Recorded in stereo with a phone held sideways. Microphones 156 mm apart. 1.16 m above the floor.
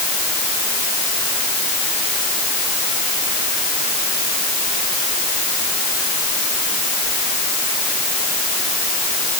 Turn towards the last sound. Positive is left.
No sound to turn to.